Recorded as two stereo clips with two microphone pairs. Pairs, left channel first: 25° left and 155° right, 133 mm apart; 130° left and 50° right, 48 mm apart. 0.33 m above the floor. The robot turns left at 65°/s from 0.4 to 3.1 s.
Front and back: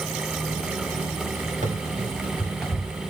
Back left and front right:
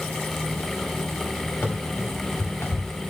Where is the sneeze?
I don't hear a sneeze.